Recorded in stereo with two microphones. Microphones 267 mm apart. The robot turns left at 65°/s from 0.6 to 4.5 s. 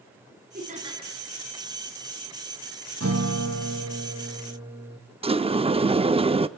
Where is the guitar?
60° right, 3.5 m; by 5.0 s 160° right, 3.5 m.